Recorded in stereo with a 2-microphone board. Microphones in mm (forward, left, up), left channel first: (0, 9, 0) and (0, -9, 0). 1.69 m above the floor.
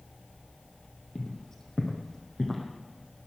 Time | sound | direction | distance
1.1 | footsteps | 30° left (ahead or behind) | 2.5 m